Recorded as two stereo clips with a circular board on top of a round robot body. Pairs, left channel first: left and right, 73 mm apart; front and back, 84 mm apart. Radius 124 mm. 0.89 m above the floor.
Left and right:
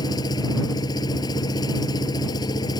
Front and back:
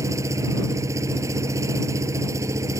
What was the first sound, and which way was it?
An engine running, 125° left.